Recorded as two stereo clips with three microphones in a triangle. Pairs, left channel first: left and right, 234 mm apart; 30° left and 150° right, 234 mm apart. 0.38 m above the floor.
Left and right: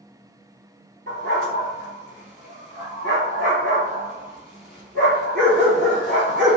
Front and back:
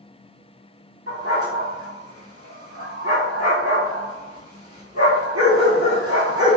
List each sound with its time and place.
1.1 s a dog barking: 140° right, 1.6 m